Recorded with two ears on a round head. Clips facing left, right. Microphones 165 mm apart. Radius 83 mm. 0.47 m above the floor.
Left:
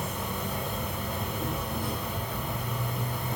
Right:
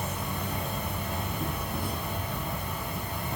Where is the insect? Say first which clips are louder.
Left 1 dB; 15° right (ahead or behind), 2 m.